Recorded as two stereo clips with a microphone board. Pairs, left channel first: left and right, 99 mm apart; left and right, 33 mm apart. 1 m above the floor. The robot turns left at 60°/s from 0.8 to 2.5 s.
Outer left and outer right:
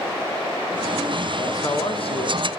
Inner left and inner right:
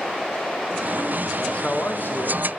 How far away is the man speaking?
About 0.6 m.